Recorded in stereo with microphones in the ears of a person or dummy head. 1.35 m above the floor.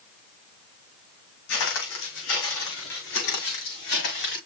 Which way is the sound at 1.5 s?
70° left (ahead or behind).